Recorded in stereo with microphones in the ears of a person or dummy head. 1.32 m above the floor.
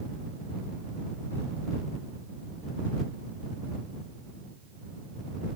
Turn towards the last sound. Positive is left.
No sound to turn to.